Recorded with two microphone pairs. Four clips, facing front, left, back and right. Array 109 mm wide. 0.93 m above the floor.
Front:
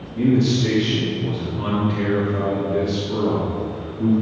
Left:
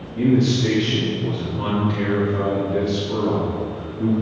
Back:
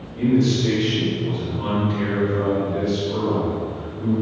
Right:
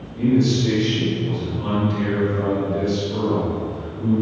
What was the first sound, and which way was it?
A man speaking, 50° left.